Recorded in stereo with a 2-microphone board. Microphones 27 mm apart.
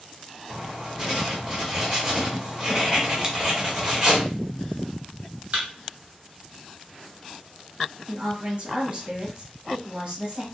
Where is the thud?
40° right (ahead or behind), 1.4 m.